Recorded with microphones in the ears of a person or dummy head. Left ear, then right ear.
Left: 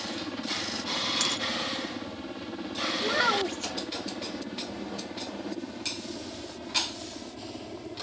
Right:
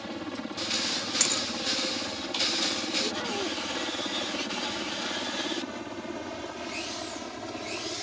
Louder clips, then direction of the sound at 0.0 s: Left 2 dB; 5° right (ahead or behind).